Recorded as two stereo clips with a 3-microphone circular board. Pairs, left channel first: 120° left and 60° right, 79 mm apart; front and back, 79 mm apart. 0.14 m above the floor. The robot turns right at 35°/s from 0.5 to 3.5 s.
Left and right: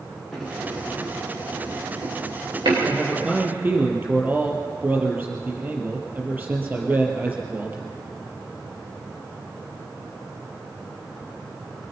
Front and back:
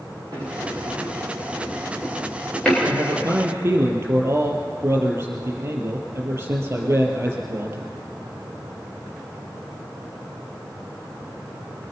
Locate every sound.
0.3 s a sliding door: 150° right, 7 m; by 2.7 s 75° right, 7 m
2.8 s a man speaking: 150° right, 4.5 m; by 7.9 s 125° right, 4.5 m